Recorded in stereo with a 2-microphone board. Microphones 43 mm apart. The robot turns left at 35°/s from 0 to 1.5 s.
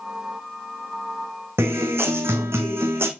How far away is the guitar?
About 1.7 m.